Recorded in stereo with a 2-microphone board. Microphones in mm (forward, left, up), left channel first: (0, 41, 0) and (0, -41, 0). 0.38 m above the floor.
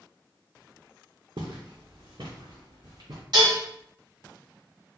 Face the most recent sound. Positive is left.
turn(degrees=-55)  # may be behind; listen again after turning